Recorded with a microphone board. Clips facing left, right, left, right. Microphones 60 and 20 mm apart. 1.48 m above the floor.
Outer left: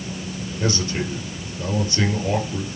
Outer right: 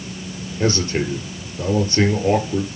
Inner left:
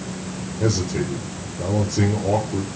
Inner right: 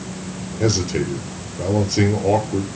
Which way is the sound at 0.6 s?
35° right (ahead or behind).